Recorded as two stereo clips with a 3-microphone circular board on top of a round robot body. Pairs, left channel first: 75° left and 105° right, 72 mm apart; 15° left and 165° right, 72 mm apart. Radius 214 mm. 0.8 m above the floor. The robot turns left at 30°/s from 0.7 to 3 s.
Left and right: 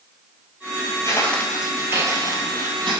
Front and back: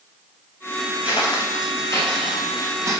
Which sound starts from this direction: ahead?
Footsteps, at 1.0 s.